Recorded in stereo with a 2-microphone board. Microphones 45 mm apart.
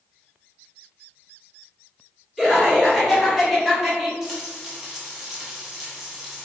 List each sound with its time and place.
2.4 s laughter: 5° left (ahead or behind), 1.9 m; by 4.1 s 5° right (ahead or behind), 1.1 m
4.2 s frying: 5° right (ahead or behind), 1.1 m